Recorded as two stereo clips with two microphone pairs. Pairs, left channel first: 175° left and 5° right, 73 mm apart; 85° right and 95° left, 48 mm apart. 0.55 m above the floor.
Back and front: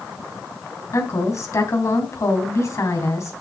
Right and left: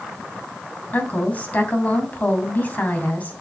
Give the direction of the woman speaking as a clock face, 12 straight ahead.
5 o'clock.